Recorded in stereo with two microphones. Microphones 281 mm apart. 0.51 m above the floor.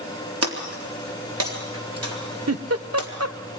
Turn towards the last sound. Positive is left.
turn(degrees=-60)  # may be behind; listen again after turning